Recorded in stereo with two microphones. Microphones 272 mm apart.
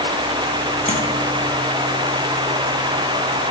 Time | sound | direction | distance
0.9 | tapping | 25° left (ahead or behind) | 0.9 m